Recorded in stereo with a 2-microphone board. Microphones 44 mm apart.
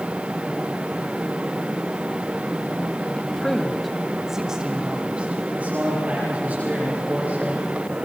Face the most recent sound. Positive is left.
turn(degrees=-30)  # may be behind; listen again after turning